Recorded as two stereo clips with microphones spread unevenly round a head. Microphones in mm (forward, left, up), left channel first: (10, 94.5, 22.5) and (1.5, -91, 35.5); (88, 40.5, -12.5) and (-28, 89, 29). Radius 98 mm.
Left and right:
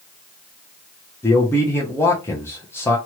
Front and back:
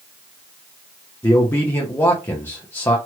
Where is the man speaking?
20° left, 0.7 m.